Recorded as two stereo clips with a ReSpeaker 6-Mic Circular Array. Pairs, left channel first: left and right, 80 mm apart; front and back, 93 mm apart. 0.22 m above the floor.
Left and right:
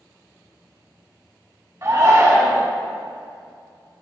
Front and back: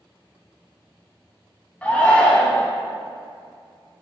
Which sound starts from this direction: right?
A shout, at 1.8 s.